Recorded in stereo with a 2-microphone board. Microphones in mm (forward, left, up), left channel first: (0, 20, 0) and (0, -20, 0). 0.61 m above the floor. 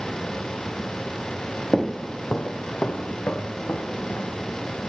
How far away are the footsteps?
About 0.7 m.